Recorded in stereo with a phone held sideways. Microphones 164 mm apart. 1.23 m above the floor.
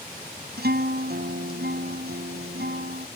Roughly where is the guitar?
Right.